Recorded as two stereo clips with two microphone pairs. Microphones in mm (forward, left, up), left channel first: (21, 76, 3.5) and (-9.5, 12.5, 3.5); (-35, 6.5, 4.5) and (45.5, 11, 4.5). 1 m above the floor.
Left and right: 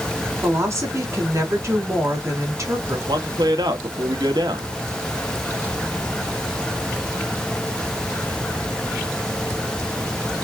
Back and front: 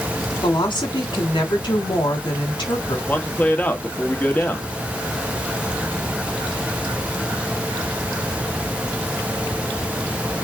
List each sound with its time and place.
0.4 s a woman speaking: 160° right, 3 m
3.1 s a man speaking: 105° right, 1.6 m